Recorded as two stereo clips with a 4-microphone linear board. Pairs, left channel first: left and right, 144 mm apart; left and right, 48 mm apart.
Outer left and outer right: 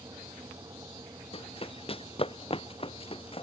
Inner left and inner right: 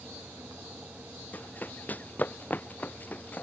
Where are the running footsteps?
40° left (ahead or behind).